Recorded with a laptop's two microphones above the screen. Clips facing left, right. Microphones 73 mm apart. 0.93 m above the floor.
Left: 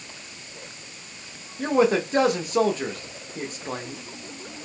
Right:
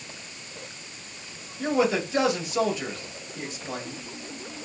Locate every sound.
1.6 s a man speaking: 45° left (ahead or behind), 1.0 m